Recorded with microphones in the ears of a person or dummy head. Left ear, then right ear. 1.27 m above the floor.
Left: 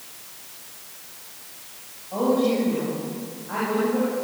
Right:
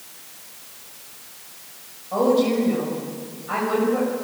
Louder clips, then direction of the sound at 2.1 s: Right 3 dB; 65° right (ahead or behind).